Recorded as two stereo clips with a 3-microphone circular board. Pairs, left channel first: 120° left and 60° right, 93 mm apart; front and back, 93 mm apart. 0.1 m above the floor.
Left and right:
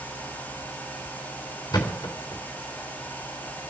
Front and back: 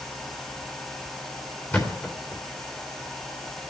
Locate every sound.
1.7 s a thud: 70° left, 3.5 m